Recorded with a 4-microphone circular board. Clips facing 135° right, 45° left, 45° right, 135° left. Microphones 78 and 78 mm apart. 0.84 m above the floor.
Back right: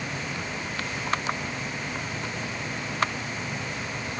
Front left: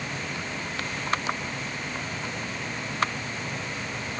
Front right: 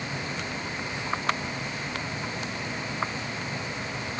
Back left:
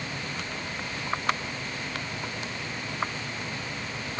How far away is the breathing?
No breathing in this recording.